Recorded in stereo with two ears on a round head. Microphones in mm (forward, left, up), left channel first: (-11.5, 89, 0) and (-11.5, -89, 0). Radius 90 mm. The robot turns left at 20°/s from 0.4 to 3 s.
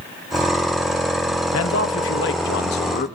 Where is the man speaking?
75° left (ahead or behind), 1.3 m; by 3.1 s 45° left (ahead or behind), 1.3 m.